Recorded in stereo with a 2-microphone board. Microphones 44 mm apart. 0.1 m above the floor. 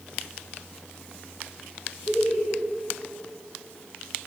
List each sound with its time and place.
2.1 s laughter: 10° left (ahead or behind), 2.5 m